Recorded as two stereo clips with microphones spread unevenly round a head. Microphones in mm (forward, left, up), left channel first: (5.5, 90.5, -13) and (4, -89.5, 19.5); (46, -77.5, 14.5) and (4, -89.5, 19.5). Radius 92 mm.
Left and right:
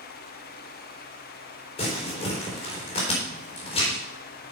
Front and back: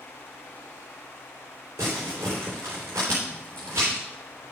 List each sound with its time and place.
1.8 s crumpling: 155° left, 3.5 m